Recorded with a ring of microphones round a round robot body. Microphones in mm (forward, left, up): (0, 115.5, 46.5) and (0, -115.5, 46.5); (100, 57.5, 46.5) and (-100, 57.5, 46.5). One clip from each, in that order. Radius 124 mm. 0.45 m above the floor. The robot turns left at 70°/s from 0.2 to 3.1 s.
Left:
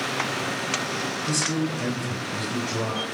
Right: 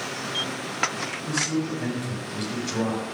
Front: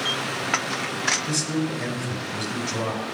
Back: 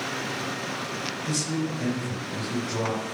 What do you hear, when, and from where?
1.2 s a man speaking: 60° left, 3.5 m; by 3.1 s 65° right, 3.5 m